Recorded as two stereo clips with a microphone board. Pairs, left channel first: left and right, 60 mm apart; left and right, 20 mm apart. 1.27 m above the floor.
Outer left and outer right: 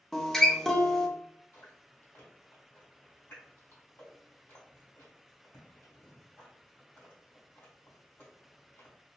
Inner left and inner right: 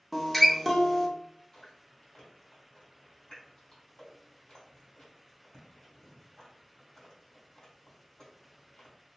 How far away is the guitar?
About 0.5 m.